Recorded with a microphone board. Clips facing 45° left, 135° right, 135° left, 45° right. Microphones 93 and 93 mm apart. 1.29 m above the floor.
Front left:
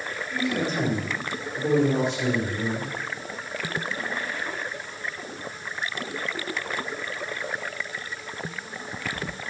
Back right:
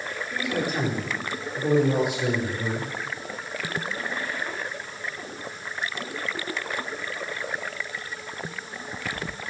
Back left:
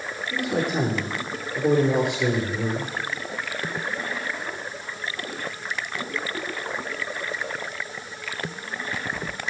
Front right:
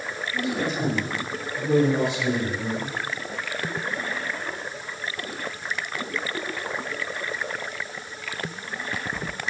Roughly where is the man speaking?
Behind left.